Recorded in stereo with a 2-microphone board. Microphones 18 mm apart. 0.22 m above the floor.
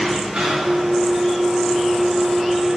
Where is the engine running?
75° right (ahead or behind), 9 m.